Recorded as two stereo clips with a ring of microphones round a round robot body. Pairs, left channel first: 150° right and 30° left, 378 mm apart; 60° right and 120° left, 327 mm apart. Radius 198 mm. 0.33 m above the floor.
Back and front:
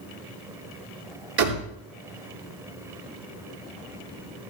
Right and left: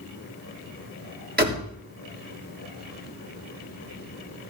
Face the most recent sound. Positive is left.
turn(degrees=60)